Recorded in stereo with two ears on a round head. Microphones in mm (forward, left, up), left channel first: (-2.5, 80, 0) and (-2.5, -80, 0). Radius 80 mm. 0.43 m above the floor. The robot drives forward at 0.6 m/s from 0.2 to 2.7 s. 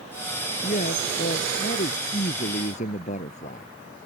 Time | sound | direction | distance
0.6 | a man speaking | 45° left (ahead or behind) | ?